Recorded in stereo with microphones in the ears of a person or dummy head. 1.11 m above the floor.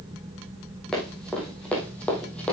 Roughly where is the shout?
I don't hear a shout.